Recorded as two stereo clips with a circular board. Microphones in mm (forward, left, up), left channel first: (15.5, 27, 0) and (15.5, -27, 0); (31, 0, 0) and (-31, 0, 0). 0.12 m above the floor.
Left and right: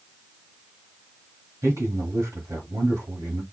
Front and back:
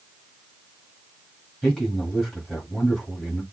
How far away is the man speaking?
About 4 m.